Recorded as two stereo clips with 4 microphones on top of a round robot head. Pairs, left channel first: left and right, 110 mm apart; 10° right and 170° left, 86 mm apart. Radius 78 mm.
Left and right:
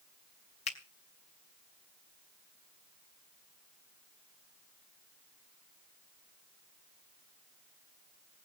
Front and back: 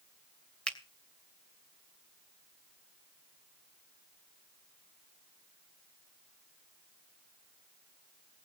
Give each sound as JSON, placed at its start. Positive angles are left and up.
{"t": 0.7, "sound": "a finger snap", "azimuth_deg": 65, "distance_m": 2.5}